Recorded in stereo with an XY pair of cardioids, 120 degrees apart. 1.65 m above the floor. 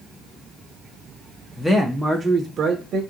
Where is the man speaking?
20° left, 0.7 m; by 3.0 s 60° right, 0.6 m.